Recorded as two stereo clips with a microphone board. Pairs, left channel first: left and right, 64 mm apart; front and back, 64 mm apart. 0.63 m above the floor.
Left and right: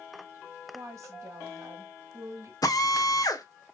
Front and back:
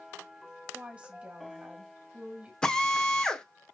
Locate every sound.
0.7 s a woman speaking: 120° right, 1.2 m
2.6 s a drill: 75° left, 0.7 m